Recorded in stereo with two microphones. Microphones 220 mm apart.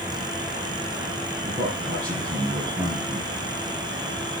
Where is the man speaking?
40° right (ahead or behind), 3 m.